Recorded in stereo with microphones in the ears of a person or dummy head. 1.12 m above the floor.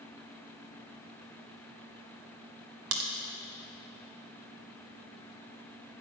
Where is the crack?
65° right (ahead or behind), 0.9 m.